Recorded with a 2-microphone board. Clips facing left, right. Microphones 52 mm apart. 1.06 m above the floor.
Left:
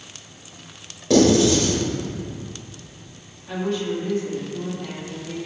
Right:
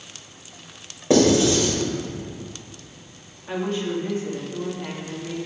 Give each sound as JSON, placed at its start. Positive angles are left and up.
{"t": 1.1, "sound": "writing", "side_deg": -30, "distance_m": 3.0}
{"t": 3.5, "sound": "a woman speaking", "side_deg": -30, "distance_m": 2.0}